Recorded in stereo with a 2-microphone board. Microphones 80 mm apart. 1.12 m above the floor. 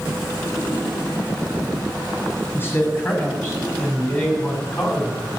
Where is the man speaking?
25° left (ahead or behind), 8 m; by 5.3 s 10° left (ahead or behind), 7.5 m.